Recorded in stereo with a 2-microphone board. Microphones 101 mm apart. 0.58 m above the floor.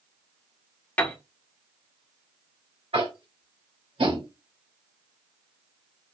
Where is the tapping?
70° right (ahead or behind), 2.5 m.